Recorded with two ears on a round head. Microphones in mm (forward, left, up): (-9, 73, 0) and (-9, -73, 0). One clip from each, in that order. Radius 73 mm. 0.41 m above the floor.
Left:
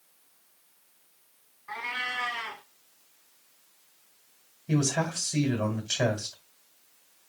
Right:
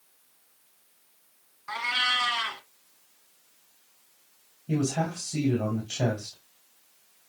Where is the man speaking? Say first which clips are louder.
Left 1 dB; 55° left (ahead or behind), 2.5 m.